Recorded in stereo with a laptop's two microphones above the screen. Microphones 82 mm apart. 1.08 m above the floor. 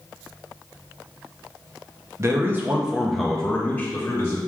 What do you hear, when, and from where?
2.2 s a man speaking: 35° right (ahead or behind), 0.7 m; by 4.4 s 30° left (ahead or behind), 1.2 m